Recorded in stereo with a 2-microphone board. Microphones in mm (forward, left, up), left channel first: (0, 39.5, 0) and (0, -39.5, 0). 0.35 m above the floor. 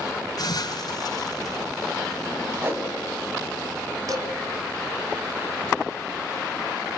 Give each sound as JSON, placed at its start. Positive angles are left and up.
{"t": 0.4, "sound": "a hiss", "side_deg": 55, "distance_m": 4.0}
{"t": 2.6, "sound": "a whoosh", "side_deg": -30, "distance_m": 3.0}
{"t": 4.1, "sound": "dishes clattering", "side_deg": -50, "distance_m": 2.5}